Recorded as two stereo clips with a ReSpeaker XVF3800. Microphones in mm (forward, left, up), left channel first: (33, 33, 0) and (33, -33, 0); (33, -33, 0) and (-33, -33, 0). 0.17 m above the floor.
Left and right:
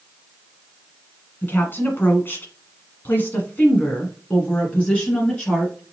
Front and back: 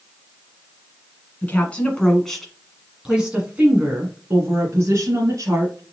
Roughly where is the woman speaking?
Ahead left.